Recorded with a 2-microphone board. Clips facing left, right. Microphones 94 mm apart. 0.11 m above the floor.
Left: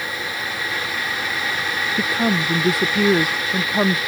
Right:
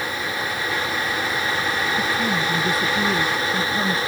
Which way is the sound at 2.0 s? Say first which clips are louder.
Left 2 dB; 70° left (ahead or behind).